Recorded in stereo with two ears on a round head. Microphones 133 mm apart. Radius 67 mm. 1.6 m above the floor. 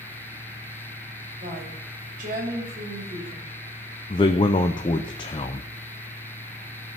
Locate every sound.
1.4 s a woman speaking: 60° right (ahead or behind), 5.5 m
4.1 s a man speaking: 30° left (ahead or behind), 0.7 m